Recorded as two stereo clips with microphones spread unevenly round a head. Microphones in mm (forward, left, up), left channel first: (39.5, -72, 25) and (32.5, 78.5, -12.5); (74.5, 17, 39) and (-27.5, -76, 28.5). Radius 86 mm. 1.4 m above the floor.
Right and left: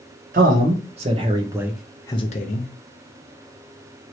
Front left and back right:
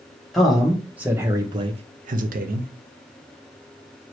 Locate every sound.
0.3 s a man speaking: 130° left, 1.3 m; by 2.7 s 125° right, 0.7 m